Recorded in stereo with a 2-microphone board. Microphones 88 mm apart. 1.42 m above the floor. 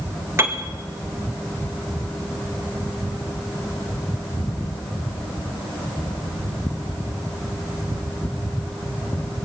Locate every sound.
0.4 s a piano: 30° right (ahead or behind), 2 m